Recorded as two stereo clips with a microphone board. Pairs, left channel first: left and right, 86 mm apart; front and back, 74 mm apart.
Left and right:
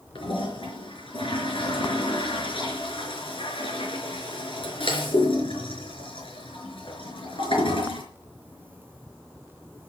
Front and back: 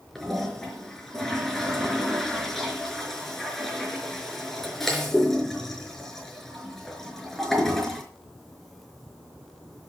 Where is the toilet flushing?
85° left, 4.5 m.